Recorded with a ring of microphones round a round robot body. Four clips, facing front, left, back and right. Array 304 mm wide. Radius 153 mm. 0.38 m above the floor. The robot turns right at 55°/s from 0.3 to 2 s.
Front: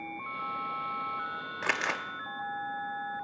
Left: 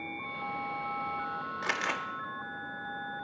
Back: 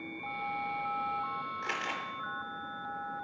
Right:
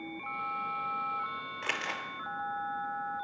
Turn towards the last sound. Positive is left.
turn(degrees=30)